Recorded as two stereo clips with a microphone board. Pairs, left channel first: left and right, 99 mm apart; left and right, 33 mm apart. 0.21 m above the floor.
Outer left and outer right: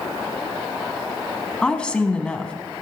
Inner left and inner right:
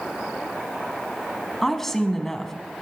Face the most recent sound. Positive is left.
turn(degrees=10)  # may be behind; listen again after turning